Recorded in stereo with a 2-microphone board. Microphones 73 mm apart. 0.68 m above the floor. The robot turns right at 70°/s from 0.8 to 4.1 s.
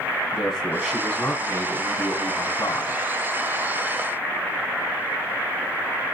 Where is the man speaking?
5° right, 4.5 m; by 3.0 s 150° left, 4.5 m.